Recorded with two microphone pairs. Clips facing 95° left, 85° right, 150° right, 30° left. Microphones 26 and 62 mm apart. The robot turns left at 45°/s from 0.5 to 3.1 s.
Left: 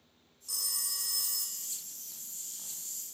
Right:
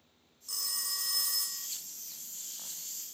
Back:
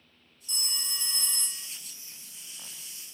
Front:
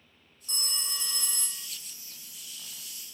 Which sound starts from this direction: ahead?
A phone ringing, at 0.5 s.